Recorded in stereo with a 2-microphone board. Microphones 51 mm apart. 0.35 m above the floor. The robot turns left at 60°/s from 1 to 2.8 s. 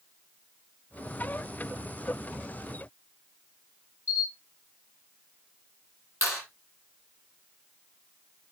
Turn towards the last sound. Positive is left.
turn(degrees=70)  # may be behind; listen again after turning